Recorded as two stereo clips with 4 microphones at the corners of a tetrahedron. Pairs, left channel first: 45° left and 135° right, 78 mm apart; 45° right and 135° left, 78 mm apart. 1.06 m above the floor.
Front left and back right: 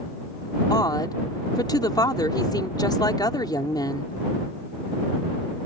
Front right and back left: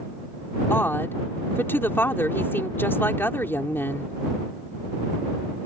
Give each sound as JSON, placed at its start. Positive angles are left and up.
{"t": 0.7, "sound": "a woman speaking", "azimuth_deg": 15}